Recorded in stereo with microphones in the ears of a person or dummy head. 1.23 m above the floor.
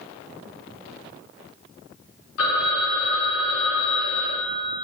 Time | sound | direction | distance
2.4 | a phone ringing | 70° left (ahead or behind) | 0.8 m